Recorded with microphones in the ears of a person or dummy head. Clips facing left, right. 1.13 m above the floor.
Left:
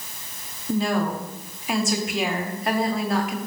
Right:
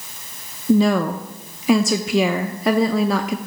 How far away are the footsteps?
I don't hear footsteps.